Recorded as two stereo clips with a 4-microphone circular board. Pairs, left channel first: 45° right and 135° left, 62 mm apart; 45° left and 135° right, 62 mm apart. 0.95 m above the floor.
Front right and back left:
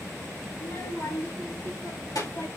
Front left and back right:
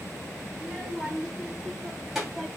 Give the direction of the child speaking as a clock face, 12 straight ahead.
1 o'clock.